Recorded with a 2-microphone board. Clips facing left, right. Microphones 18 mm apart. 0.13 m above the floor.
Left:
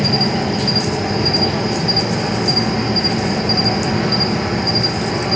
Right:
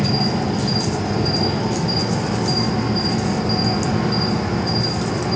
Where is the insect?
35° left (ahead or behind), 1.0 m.